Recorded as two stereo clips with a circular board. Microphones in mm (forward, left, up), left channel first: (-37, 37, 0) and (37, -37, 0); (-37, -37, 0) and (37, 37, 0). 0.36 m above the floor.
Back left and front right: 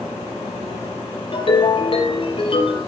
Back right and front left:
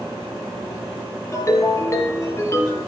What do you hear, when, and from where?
1.3 s a ringtone: 165° left, 5 m